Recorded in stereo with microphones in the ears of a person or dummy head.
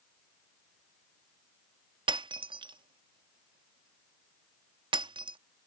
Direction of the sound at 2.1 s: 25° right (ahead or behind).